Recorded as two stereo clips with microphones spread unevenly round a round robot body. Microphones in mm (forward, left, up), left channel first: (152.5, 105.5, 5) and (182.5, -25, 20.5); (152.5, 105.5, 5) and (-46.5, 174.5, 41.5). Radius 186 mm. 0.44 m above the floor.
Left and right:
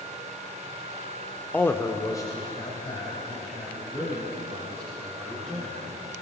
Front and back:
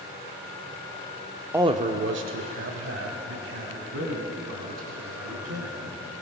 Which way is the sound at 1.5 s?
70° left.